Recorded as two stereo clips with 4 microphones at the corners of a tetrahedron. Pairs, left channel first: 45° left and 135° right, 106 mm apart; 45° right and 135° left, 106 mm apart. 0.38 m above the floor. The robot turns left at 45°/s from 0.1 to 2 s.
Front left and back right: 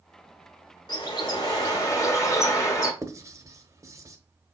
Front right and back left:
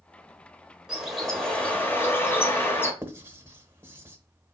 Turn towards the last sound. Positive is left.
turn(degrees=-175)